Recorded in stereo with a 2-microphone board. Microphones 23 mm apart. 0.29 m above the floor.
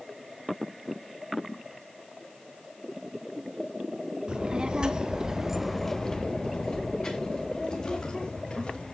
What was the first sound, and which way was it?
A child speaking, 40° right (ahead or behind).